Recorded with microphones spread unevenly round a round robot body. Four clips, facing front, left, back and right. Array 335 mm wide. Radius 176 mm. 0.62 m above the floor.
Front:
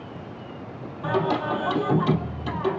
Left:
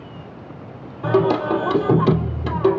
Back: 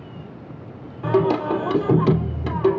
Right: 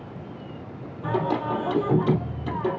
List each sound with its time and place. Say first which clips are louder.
1.0 s singing: left 8 dB, back 5 dB; 115° left, 2.5 m